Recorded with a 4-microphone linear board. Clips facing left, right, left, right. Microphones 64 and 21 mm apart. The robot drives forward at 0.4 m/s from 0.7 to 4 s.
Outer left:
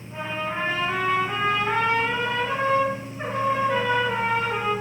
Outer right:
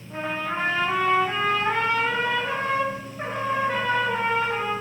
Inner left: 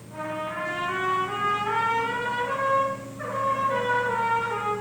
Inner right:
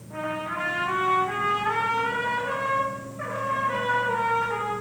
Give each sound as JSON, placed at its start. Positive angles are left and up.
{"t": 0.1, "sound": "a trumpet", "side_deg": -50, "distance_m": 3.5}